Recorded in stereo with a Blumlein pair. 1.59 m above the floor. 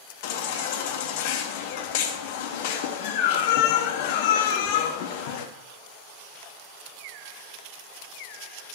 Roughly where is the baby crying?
Ahead left.